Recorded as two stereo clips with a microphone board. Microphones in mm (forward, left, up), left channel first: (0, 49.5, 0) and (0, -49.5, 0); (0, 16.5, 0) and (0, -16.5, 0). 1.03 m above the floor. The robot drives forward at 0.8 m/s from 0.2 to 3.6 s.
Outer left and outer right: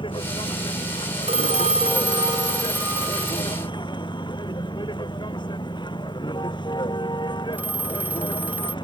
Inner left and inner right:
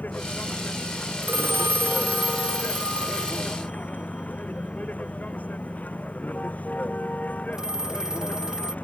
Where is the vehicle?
50° left (ahead or behind); by 8.8 s 45° left (ahead or behind).